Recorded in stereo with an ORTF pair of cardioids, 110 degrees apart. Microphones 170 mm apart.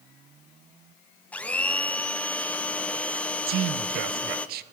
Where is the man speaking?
70° right, 0.6 m.